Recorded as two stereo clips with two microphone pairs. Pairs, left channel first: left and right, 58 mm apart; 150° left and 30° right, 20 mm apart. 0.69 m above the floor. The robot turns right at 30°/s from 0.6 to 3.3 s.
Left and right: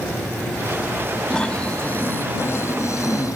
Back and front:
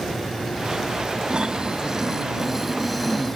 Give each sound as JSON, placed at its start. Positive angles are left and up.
{"t": 1.3, "sound": "snoring", "azimuth_deg": 10}